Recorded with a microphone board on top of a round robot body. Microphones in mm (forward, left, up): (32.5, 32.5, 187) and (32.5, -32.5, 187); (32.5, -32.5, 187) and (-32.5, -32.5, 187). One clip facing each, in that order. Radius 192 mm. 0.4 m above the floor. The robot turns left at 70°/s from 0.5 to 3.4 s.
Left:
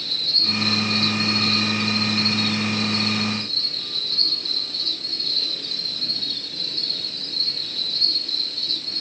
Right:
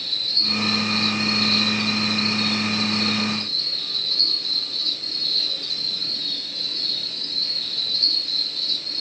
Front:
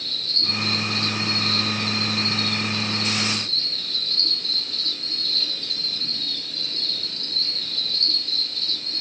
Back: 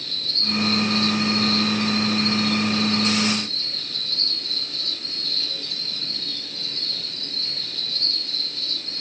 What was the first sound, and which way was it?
An insect, 95° left.